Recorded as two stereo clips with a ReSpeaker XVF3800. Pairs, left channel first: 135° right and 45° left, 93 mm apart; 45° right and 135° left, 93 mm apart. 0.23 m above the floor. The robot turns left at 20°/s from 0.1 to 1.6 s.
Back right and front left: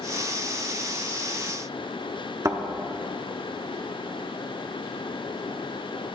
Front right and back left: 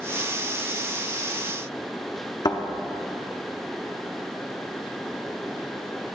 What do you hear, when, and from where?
2.5 s a thud: 10° right, 1.0 m